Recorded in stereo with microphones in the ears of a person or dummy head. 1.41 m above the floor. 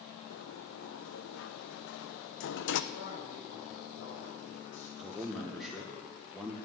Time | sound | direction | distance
0.3 | a sliding door | 60° left (ahead or behind) | 0.7 m
2.9 | a man speaking | 70° left (ahead or behind) | 6 m
5.0 | a man speaking | centre (ahead or behind) | 1.5 m